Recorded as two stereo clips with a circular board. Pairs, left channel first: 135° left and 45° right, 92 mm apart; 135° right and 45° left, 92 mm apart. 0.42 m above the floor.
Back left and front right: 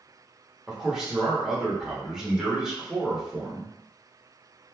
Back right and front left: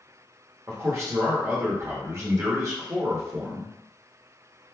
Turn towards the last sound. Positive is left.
turn(degrees=35)